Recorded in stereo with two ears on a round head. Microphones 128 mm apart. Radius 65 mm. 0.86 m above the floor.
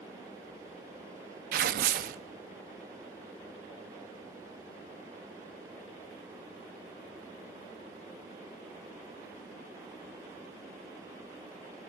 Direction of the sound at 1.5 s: 70° right (ahead or behind).